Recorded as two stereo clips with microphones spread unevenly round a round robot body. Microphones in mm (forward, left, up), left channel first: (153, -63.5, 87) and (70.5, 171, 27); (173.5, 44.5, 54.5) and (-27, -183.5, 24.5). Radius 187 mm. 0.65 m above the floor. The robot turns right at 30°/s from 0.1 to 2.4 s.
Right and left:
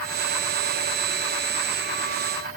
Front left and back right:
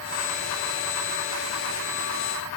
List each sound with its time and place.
Only background noise.